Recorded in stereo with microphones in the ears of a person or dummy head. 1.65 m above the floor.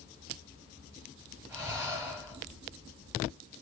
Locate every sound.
1.5 s breathing: 5° left (ahead or behind), 2 m